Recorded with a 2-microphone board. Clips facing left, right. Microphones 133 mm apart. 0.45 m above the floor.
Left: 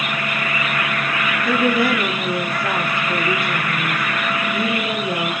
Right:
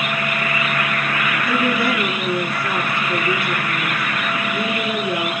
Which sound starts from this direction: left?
A woman speaking, at 1.4 s.